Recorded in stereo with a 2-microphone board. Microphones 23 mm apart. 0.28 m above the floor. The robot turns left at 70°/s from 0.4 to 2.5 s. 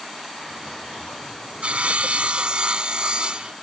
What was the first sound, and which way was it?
Sawing, 65° right.